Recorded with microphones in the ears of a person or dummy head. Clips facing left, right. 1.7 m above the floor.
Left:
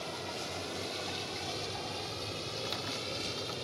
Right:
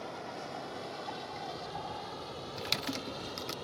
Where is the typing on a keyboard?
35° right (ahead or behind).